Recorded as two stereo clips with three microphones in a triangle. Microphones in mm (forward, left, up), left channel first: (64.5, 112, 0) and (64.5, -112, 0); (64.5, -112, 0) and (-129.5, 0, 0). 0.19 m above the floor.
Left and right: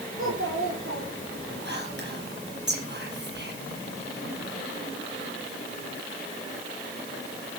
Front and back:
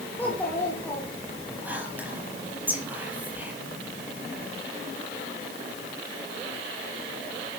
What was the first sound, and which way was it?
A child speaking, 110° right.